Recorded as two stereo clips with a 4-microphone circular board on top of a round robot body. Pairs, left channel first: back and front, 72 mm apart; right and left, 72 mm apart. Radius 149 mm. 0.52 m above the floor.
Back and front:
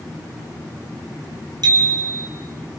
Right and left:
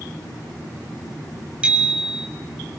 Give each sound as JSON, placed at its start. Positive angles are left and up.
{"t": 1.6, "sound": "a bicycle bell", "azimuth_deg": 20, "distance_m": 3.0}